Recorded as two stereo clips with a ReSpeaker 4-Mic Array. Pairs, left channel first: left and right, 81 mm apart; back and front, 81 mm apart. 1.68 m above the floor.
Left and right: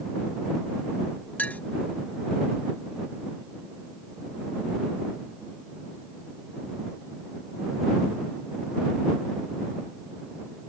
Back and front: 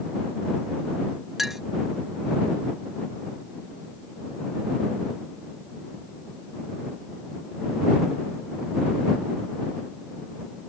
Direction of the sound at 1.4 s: 80° left.